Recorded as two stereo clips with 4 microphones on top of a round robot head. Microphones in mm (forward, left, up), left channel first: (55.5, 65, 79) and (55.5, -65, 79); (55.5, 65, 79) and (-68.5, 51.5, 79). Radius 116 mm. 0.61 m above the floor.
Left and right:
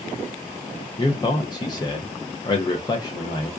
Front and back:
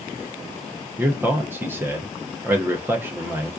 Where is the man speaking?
120° left, 0.7 m.